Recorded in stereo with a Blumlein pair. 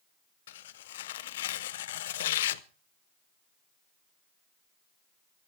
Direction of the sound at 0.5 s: 55° left.